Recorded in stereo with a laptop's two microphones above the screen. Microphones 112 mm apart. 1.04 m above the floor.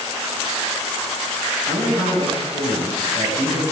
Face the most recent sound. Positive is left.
turn(degrees=-70)  # may be behind; listen again after turning